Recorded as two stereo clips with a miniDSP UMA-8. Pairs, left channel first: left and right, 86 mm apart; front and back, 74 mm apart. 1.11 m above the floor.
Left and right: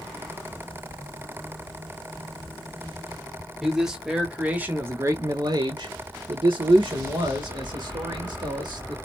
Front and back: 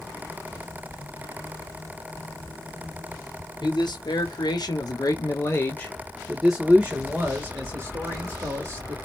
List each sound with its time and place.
3.6 s a man speaking: straight ahead, 1.3 m; by 9.0 s 130° right, 1.9 m